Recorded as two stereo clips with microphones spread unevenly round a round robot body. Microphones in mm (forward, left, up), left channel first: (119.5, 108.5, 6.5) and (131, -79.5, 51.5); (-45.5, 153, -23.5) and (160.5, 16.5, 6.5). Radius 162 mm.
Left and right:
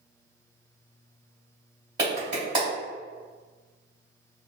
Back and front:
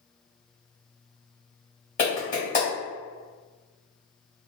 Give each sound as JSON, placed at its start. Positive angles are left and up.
{"t": 2.0, "sound": "a clap", "azimuth_deg": -165, "distance_m": 1.5}